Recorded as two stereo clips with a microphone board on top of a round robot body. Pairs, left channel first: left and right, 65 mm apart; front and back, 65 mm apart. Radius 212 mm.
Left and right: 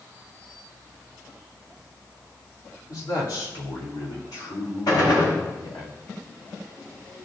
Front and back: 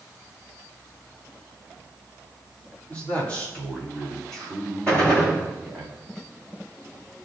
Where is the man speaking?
65° left, 3.5 m; by 5.9 s 90° left, 4.5 m.